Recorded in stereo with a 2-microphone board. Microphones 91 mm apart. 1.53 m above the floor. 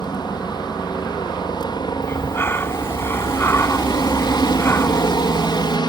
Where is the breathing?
25° left (ahead or behind).